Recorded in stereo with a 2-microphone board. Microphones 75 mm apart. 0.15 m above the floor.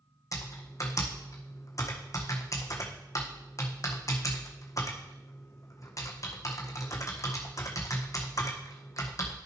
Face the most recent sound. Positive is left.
turn(degrees=50)  # may be behind; listen again after turning